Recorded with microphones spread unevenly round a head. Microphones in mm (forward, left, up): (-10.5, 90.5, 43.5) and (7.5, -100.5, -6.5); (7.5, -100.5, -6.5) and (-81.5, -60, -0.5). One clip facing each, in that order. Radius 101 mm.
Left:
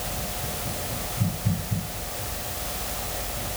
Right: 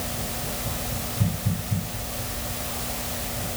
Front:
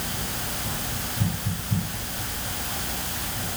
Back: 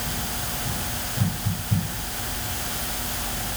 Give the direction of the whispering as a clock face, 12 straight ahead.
I don't hear whispering.